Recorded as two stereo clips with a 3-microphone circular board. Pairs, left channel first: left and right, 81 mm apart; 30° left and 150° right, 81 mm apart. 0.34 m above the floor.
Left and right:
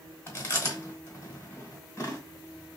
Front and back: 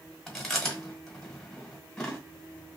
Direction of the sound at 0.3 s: 110° left.